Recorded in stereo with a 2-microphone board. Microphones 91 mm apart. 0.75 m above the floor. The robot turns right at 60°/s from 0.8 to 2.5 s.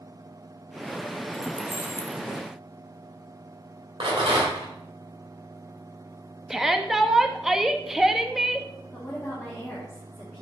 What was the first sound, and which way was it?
Keys jangling, centre (ahead or behind).